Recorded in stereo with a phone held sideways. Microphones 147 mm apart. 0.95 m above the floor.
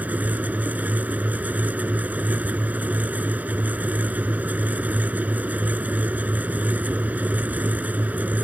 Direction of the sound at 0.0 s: 10° right (ahead or behind).